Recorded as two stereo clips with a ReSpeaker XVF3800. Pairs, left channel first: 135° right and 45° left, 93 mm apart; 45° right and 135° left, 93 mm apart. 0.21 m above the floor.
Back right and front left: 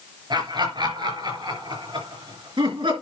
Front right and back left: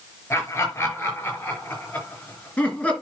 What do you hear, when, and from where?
0.3 s laughter: 15° left, 5 m; by 2.9 s 30° left, 4 m